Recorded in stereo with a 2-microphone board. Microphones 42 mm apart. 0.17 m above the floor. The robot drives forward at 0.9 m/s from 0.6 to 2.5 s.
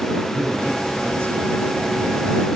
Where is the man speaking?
70° right (ahead or behind), 8.5 m; by 2.3 s 80° right, 8 m.